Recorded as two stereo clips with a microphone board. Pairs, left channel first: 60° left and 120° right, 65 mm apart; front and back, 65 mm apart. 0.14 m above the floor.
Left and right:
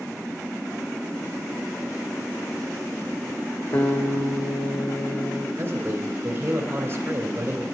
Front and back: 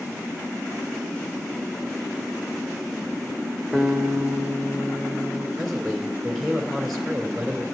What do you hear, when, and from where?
3.7 s a guitar: 75° left, 2.5 m
5.6 s a man speaking: 90° right, 2.5 m